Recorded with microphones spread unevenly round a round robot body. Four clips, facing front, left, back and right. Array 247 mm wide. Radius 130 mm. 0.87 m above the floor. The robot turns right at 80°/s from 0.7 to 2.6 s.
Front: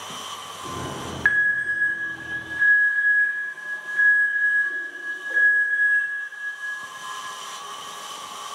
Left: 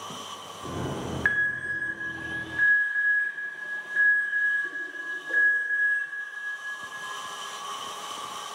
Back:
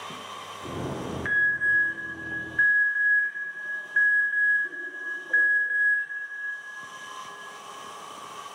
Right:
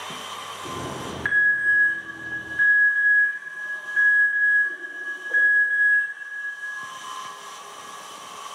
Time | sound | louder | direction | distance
1.2 | an alarm | right 8 dB, front 3 dB | straight ahead | 4 m